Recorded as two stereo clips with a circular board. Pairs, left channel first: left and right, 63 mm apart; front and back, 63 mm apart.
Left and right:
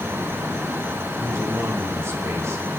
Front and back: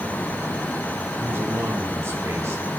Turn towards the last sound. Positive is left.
turn(degrees=-135)